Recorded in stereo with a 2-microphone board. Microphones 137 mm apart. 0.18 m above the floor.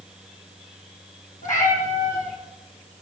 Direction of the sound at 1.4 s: 80° left.